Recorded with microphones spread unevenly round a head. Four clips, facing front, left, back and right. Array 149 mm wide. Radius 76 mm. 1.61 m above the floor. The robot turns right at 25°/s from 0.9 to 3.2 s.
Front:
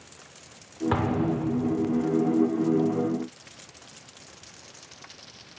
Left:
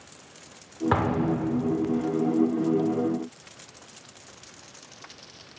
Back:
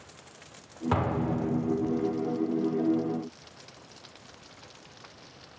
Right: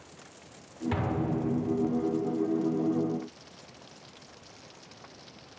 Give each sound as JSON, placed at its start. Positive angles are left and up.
{"t": 0.9, "sound": "an explosion", "azimuth_deg": 80, "distance_m": 6.5}